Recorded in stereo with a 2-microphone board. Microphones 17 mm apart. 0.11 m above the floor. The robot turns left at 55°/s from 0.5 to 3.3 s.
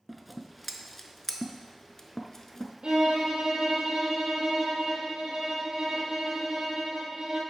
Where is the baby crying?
No baby crying in this recording.